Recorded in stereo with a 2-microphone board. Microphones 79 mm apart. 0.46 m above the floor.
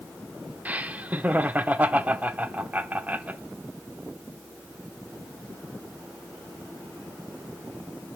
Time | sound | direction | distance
0.7 | laughter | 20° right (ahead or behind) | 0.8 m